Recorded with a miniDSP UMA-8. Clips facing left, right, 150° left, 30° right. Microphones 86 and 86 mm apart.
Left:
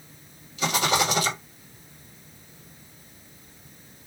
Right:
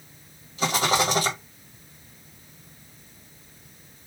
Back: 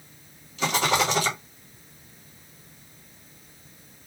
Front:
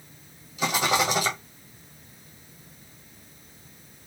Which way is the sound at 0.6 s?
100° right.